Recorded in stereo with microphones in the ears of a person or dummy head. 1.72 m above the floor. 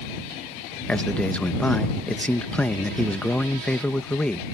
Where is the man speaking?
5° left (ahead or behind).